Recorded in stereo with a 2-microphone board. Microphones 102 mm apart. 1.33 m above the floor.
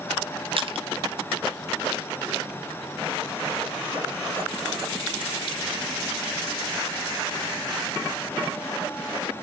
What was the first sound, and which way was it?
Crushing, 60° right (ahead or behind).